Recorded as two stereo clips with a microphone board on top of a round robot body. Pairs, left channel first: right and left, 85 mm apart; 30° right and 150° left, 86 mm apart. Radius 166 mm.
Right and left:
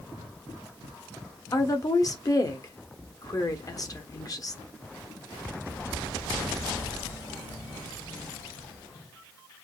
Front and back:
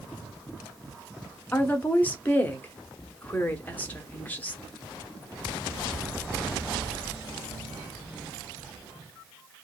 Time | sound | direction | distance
1.5 | a woman speaking | 90° right | 1.2 m